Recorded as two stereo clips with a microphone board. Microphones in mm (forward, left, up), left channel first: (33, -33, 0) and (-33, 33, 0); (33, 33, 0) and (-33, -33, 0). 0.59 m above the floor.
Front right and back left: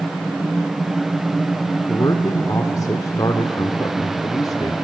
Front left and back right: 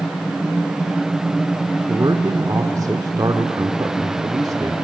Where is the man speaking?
90° right, 1.3 m.